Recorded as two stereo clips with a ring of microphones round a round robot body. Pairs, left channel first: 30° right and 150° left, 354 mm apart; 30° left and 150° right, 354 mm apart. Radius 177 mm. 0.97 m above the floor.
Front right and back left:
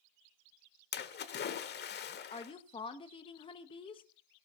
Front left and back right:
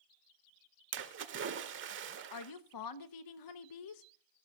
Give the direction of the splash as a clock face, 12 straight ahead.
3 o'clock.